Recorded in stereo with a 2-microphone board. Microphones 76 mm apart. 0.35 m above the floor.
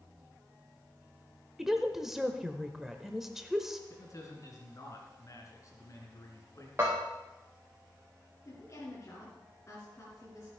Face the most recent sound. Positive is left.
turn(degrees=30)  # may be behind; listen again after turning